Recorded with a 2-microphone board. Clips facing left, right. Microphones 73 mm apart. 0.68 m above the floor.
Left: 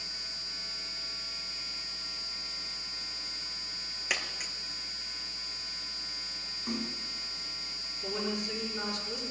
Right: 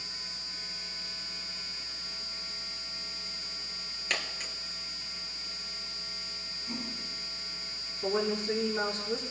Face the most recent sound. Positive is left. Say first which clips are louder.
# right 5 dB
turn(degrees=-35)  # may be behind; listen again after turning